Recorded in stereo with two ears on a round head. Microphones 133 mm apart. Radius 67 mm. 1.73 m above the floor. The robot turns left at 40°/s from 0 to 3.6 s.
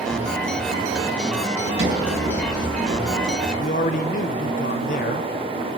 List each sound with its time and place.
1.6 s a sliding door: 80° right, 3.5 m; by 3.4 s 150° right, 3.5 m
3.6 s a man speaking: 55° left (ahead or behind), 1.1 m